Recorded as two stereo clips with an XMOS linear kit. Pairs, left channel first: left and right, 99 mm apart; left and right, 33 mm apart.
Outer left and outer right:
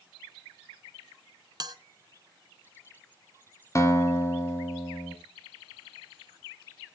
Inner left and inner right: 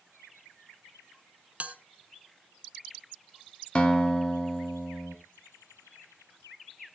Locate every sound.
1.6 s a bell: 45° right (ahead or behind), 0.9 m
3.8 s a guitar: 30° left (ahead or behind), 1.7 m